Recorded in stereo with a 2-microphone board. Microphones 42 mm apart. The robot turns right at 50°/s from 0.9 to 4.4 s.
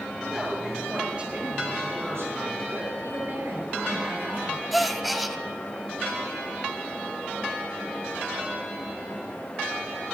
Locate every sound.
0.2 s a woman speaking: 170° right, 6.5 m; by 2.9 s 65° right, 6.5 m
3.0 s a woman speaking: 120° right, 5.5 m; by 4.6 s 50° right, 5.5 m
4.7 s a gasp: centre (ahead or behind), 0.5 m